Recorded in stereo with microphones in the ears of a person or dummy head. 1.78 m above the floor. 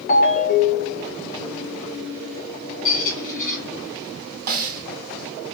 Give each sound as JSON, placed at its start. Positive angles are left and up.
{"t": 0.1, "sound": "a ringtone", "side_deg": 35, "distance_m": 0.8}
{"t": 2.9, "sound": "a squeak", "side_deg": 40, "distance_m": 1.3}
{"t": 4.5, "sound": "a snare drum", "side_deg": -50, "distance_m": 0.8}